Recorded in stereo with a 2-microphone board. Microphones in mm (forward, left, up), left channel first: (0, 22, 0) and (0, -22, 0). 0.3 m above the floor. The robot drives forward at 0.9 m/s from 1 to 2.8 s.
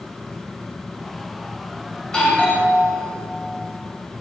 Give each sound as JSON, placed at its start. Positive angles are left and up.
{"t": 2.0, "sound": "a doorbell", "side_deg": 20, "distance_m": 1.9}